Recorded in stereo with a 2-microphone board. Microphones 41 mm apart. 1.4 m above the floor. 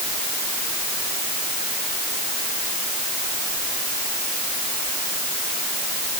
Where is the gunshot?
No gunshot in this recording.